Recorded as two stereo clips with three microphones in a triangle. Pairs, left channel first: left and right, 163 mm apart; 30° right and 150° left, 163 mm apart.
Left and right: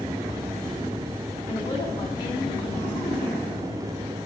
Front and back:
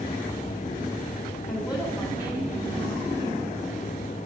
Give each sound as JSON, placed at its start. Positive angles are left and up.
{"t": 1.5, "sound": "a woman speaking", "azimuth_deg": 40, "distance_m": 2.5}